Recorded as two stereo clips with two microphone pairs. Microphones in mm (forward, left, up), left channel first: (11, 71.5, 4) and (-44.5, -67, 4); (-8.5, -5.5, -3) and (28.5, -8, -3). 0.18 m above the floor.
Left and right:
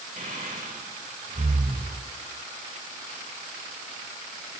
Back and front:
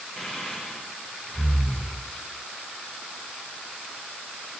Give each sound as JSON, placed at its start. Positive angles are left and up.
{"t": 0.2, "sound": "breathing", "azimuth_deg": -90, "distance_m": 3.5}